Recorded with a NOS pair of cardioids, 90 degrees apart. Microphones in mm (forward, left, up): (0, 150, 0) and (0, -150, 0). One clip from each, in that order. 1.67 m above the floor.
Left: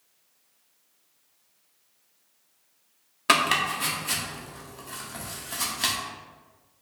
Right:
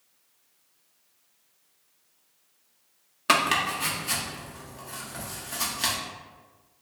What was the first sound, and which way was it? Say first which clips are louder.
Chopping: left 1 dB; 10° left.